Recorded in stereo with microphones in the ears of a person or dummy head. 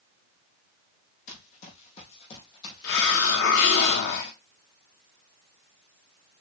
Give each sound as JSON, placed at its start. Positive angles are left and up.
{"t": 1.3, "sound": "running footsteps", "side_deg": 40, "distance_m": 4.0}
{"t": 2.8, "sound": "a hiss", "side_deg": 75, "distance_m": 2.0}